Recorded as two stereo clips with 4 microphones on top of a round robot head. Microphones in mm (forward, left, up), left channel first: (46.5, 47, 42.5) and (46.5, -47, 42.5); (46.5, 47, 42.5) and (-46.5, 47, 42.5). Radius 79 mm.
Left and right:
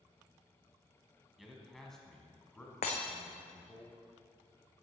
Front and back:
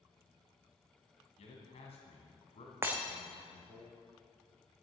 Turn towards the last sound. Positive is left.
turn(degrees=115)